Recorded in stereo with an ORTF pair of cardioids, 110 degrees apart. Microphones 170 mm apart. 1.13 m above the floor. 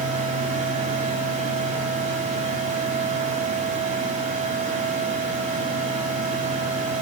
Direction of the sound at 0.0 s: 50° right.